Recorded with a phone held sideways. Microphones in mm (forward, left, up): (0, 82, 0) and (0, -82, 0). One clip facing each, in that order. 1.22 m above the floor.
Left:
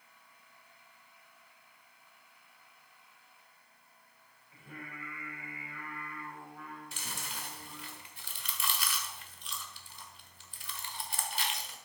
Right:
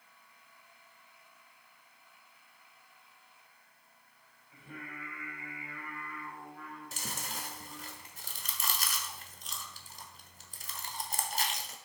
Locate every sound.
4.5 s singing: centre (ahead or behind), 5 m
6.9 s chewing: 40° right (ahead or behind), 1.1 m